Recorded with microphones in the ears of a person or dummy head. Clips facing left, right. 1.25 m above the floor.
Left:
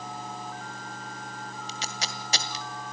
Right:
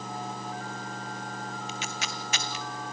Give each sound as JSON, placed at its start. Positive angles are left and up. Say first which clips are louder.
{"t": 1.7, "sound": "tape being pulled", "louder": "right 1 dB", "side_deg": 30, "distance_m": 1.8}